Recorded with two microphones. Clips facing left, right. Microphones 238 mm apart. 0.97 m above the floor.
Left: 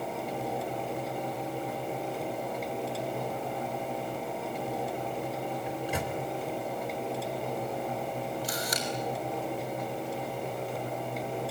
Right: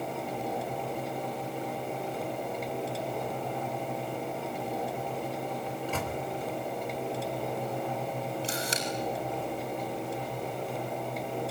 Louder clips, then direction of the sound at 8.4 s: Right 1 dB; 30° right (ahead or behind).